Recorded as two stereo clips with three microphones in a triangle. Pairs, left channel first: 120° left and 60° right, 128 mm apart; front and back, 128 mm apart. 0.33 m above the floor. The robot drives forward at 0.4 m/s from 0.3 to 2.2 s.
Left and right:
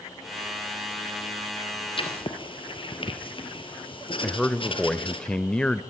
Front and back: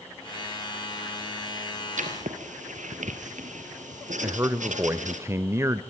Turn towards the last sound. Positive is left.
turn(degrees=-170)